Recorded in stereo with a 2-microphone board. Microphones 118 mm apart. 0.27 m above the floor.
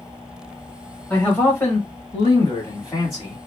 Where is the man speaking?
10° left (ahead or behind), 1.1 m; by 3.4 s 35° left (ahead or behind), 1.5 m.